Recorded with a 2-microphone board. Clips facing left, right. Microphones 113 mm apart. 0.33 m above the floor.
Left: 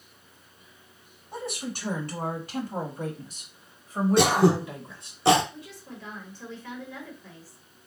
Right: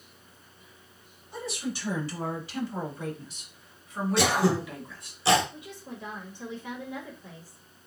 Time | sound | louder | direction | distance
1.3 | a woman speaking | even | 60° left (ahead or behind) | 3 m
4.2 | throat clearing | left 4 dB | 60° left (ahead or behind) | 1.6 m
5.5 | a woman speaking | right 1 dB | 20° right (ahead or behind) | 1.3 m